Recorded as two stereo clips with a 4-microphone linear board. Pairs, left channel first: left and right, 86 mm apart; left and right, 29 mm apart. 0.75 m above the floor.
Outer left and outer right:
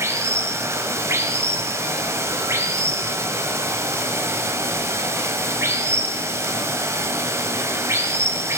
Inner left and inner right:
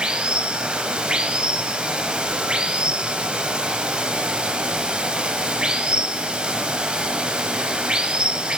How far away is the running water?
About 1.3 m.